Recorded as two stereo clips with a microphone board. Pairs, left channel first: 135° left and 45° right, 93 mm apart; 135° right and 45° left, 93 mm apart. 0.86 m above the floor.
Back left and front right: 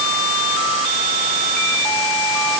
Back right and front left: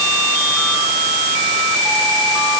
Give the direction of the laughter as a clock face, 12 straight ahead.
I don't hear laughter.